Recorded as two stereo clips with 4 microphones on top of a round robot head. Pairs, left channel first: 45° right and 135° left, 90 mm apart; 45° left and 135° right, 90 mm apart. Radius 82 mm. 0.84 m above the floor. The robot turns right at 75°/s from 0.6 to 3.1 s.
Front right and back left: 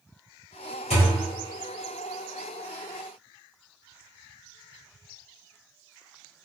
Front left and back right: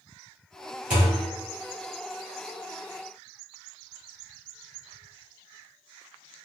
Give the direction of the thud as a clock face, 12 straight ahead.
2 o'clock.